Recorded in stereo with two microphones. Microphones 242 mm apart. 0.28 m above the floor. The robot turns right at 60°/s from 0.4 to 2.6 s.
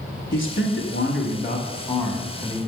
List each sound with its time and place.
0.3 s a man speaking: 70° left, 1.5 m; by 2.6 s 160° right, 1.5 m